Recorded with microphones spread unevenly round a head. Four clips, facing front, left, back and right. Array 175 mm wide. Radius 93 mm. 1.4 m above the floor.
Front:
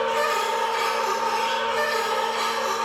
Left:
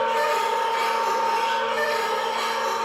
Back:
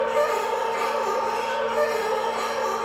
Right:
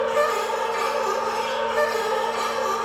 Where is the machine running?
150° right, 0.9 m.